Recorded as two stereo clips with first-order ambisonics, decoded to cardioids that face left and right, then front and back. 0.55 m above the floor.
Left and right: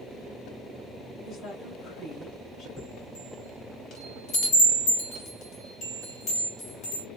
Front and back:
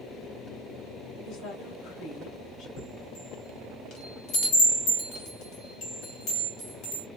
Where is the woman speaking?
30° left, 2.5 m.